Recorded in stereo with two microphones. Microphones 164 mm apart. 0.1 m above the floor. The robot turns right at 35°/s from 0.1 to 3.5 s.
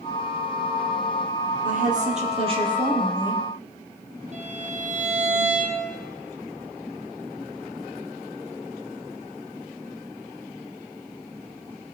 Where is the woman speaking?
70° right, 3 m; by 3.4 s 5° right, 3 m.